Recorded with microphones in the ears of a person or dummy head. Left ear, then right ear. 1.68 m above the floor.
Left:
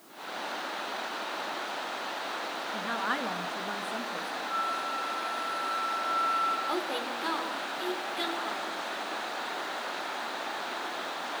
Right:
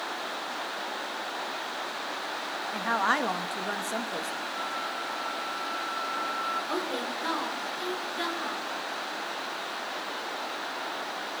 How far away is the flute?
About 5 m.